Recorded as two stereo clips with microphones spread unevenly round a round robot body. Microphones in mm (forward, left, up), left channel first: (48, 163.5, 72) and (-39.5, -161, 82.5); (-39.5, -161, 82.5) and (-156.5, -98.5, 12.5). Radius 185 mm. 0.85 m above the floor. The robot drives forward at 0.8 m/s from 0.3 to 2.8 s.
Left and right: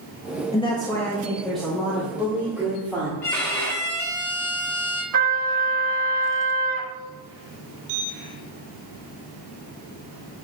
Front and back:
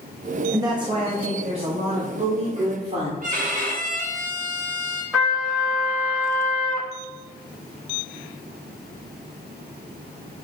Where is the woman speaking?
140° left, 0.8 m; by 3.1 s 170° left, 2.5 m.